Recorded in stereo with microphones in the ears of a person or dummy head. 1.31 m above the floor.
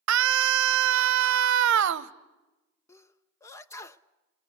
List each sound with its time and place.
0.1 s a scream: 70° right (ahead or behind), 0.9 m
2.9 s a sneeze: 15° left (ahead or behind), 0.5 m